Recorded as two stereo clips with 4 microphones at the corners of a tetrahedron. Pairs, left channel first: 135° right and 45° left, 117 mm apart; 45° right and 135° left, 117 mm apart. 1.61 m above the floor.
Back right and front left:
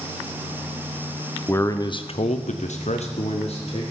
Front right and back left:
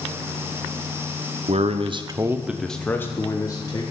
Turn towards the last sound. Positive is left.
turn(degrees=-100)